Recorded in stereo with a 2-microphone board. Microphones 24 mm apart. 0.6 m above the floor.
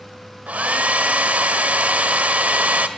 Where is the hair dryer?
75° right (ahead or behind), 1.7 m.